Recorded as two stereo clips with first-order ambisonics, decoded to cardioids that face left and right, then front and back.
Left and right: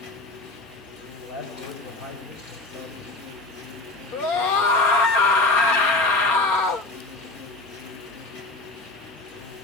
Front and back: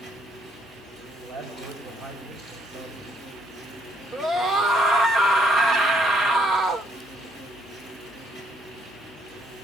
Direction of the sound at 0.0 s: 105° left.